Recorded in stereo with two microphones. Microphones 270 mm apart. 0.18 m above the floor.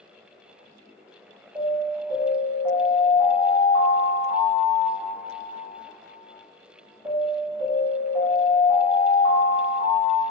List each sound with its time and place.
1.6 s an alarm: 15° right (ahead or behind), 1.5 m